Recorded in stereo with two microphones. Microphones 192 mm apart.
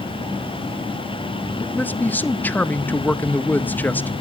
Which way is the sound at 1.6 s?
10° left (ahead or behind).